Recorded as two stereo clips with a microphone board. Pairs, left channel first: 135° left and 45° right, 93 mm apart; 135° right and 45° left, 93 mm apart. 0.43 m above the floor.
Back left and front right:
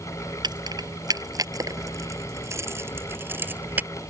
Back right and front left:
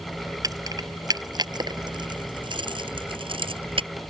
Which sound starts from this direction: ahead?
Keys jangling, at 0.4 s.